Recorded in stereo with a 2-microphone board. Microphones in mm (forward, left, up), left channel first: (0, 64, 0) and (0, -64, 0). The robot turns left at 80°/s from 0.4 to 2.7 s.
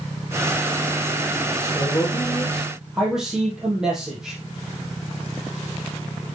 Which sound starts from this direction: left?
A man speaking, at 1.5 s.